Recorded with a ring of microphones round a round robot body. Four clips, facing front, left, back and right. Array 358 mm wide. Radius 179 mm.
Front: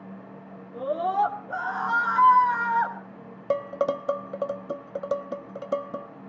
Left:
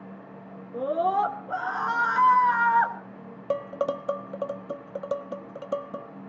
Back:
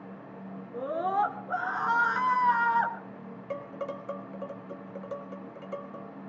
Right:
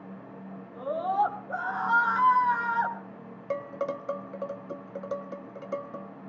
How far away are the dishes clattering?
About 1.0 m.